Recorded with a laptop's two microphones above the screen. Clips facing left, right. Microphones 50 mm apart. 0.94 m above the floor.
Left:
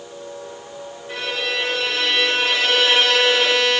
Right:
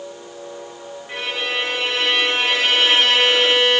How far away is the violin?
About 1.8 m.